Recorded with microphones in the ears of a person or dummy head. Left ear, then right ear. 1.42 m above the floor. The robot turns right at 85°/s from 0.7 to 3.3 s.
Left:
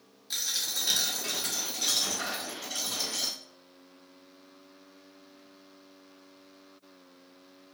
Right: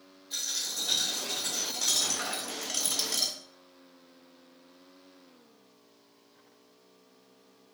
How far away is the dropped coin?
About 1.5 m.